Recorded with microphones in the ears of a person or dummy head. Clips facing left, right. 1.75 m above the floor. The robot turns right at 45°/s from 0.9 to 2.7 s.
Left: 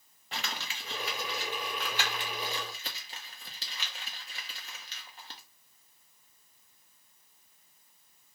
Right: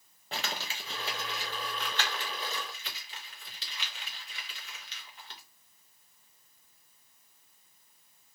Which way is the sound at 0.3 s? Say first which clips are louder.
Right 2 dB; 30° right (ahead or behind).